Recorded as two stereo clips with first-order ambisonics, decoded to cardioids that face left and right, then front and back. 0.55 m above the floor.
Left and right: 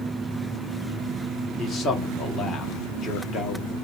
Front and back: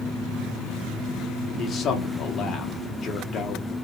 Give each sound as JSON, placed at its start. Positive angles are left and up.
{"t": 1.6, "sound": "a man speaking", "azimuth_deg": 40, "distance_m": 1.2}